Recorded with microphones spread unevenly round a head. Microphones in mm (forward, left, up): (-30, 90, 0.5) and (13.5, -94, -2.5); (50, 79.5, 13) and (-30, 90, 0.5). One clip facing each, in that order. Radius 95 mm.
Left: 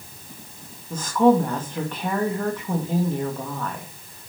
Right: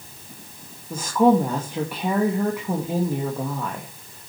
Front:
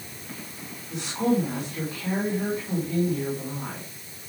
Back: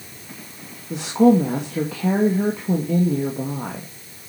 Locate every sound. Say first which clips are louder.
0.9 s a woman speaking: even, back 9 dB; 155° right, 2.5 m